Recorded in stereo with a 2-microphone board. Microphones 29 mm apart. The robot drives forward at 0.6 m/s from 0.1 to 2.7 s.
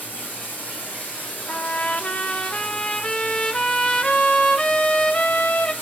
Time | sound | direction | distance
0.0 | running water | 70° left (ahead or behind) | 9.5 m
1.5 | a trumpet | 70° left (ahead or behind) | 0.7 m